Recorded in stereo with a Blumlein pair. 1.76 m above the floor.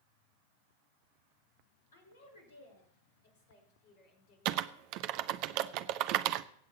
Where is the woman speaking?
65° left, 4.5 m; by 4.9 s 35° left, 4.5 m.